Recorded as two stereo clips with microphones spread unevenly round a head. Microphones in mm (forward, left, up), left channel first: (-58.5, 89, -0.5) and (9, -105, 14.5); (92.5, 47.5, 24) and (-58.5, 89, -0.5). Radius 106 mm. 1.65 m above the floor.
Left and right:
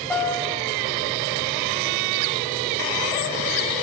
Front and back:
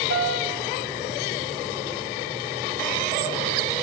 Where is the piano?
170° right, 6.5 m.